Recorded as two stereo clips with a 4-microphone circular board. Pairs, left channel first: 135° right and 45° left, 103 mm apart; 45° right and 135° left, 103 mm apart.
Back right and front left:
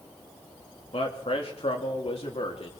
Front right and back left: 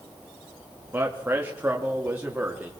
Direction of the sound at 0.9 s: 155° right.